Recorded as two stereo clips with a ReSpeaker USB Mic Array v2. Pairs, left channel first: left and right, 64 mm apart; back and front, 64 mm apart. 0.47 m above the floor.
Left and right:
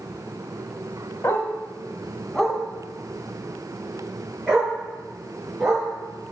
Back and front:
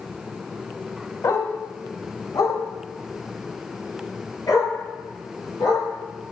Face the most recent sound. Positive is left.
turn(degrees=-165)